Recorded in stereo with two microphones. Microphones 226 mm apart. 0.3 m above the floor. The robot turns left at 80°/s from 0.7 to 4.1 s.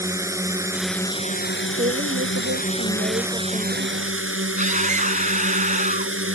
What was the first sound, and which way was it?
A drone, 165° right.